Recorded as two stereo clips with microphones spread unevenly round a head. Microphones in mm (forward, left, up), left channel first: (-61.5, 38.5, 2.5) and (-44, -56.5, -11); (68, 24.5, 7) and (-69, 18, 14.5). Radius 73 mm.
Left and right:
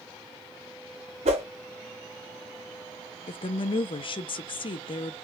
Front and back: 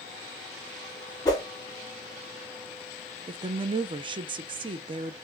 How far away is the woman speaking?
About 0.6 m.